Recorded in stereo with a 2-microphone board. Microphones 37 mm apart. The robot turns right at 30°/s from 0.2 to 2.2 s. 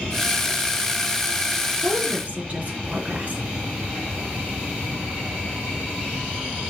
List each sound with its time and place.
1.8 s a woman speaking: 45° right (ahead or behind), 3 m; by 3.4 s 35° right (ahead or behind), 3 m